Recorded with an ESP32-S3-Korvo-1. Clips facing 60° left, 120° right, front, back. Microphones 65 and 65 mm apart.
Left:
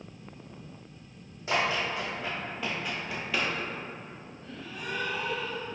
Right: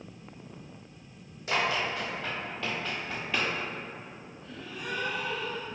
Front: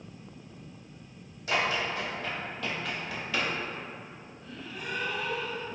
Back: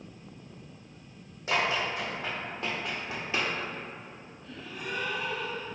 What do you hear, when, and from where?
1.5 s running footsteps: 125° left, 2.0 m; by 3.5 s 160° left, 0.9 m
4.4 s a gasp: 105° left, 1.6 m